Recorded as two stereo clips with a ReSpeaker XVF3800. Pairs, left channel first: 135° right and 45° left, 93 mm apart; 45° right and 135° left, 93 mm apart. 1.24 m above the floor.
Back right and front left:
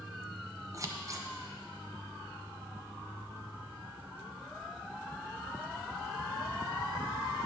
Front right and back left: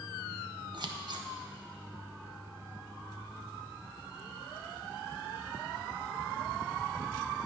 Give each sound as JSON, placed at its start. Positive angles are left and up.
{"t": 0.7, "sound": "scissors", "azimuth_deg": 100, "distance_m": 0.6}